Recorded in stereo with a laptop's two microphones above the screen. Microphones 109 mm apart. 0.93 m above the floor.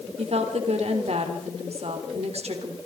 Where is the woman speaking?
75° right (ahead or behind), 3.5 m.